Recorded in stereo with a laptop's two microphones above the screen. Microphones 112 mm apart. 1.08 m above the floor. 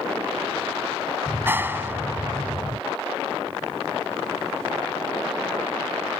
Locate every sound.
1.3 s a clap: 20° right (ahead or behind)